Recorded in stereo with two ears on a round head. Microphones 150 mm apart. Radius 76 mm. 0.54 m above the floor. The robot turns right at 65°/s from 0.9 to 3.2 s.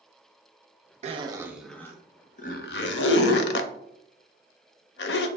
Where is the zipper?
40° right (ahead or behind), 0.5 m; by 5.3 s 70° left (ahead or behind), 0.5 m.